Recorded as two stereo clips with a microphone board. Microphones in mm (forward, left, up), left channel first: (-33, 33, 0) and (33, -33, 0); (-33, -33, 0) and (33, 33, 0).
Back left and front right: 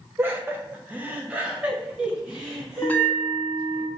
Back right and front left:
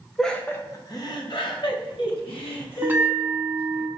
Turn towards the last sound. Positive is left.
turn(degrees=85)